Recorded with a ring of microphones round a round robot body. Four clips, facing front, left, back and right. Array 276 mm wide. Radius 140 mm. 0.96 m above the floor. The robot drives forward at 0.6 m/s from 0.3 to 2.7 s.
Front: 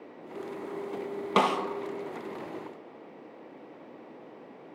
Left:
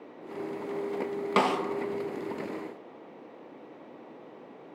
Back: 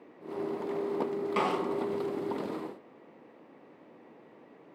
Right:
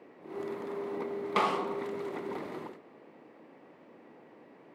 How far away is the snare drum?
About 1.0 m.